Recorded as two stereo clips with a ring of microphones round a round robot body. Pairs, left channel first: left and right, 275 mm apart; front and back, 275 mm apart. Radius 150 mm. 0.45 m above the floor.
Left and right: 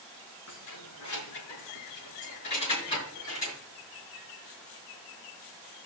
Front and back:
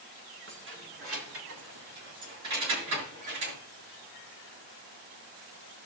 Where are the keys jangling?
135° left, 4.5 m; by 3.6 s 170° left, 6.5 m.